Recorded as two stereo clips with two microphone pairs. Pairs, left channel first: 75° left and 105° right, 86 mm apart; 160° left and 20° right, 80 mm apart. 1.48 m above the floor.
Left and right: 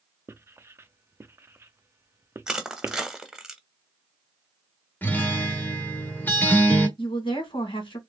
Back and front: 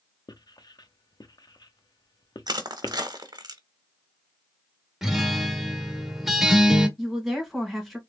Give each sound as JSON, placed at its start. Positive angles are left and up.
{"t": 0.3, "sound": "writing", "azimuth_deg": -170, "distance_m": 0.5}
{"t": 2.5, "sound": "crushing", "azimuth_deg": -30, "distance_m": 0.9}
{"t": 5.0, "sound": "a guitar", "azimuth_deg": 60, "distance_m": 1.2}
{"t": 7.0, "sound": "a woman speaking", "azimuth_deg": 70, "distance_m": 2.5}